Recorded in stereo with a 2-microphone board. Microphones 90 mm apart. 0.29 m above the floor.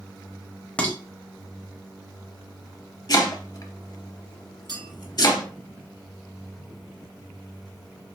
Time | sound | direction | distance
0.8 | dishes clattering | 15° left (ahead or behind) | 0.9 m
3.1 | chopping | 50° left (ahead or behind) | 0.7 m
4.7 | a clink | 55° right (ahead or behind) | 2 m